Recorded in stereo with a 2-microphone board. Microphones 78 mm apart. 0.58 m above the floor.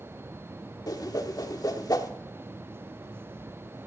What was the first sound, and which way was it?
A whoosh, 55° left (ahead or behind).